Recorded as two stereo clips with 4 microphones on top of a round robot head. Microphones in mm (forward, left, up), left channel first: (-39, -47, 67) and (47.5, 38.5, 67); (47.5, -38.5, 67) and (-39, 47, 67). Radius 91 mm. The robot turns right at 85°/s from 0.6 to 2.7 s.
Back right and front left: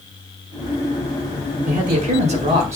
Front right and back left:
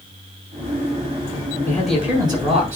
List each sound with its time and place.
1.7 s a man speaking: 25° left, 6.5 m; by 2.8 s 110° left, 6.5 m